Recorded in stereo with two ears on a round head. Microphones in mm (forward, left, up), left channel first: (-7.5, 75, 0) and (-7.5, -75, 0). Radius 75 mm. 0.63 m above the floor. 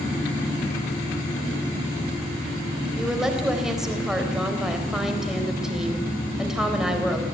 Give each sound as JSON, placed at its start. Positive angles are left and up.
{"t": 3.0, "sound": "a woman speaking", "side_deg": -5, "distance_m": 3.5}